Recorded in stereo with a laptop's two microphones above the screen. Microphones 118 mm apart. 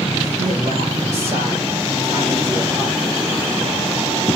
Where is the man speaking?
75° right (ahead or behind), 4 m; by 3.0 s 15° right (ahead or behind), 4 m.